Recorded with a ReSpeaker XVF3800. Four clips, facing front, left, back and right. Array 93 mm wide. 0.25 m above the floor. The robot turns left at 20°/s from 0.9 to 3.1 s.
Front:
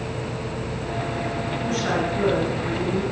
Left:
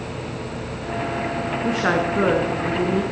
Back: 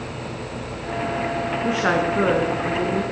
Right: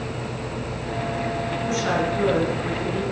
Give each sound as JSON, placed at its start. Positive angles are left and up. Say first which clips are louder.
{"t": 1.6, "sound": "a woman speaking", "louder": "left 3 dB, back 4 dB", "azimuth_deg": 140, "distance_m": 3.0}